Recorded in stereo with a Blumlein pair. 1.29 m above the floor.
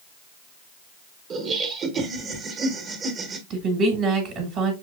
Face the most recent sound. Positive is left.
turn(degrees=-30)